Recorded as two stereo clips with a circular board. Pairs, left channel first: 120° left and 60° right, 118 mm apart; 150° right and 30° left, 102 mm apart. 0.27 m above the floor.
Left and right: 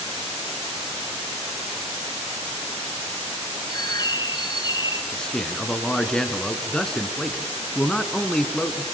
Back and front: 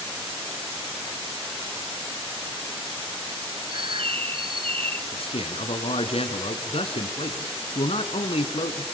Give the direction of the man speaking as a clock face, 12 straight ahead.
5 o'clock.